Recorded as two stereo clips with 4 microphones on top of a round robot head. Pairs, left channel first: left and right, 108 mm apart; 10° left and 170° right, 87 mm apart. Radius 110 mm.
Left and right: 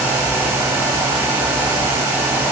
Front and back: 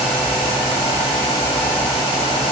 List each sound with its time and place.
Only background noise.